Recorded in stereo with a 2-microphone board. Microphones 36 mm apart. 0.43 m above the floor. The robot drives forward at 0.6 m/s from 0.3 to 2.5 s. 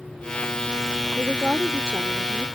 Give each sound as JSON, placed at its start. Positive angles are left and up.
{"t": 1.2, "sound": "a woman speaking", "side_deg": -30}